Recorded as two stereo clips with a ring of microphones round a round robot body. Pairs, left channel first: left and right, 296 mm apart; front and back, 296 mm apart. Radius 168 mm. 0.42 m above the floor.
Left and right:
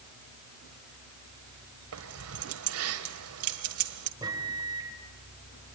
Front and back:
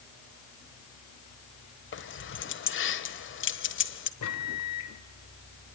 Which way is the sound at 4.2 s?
15° right.